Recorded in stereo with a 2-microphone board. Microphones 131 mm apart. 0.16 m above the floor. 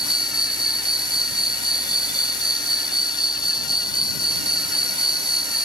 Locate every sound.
0.0 s an insect: 30° left (ahead or behind)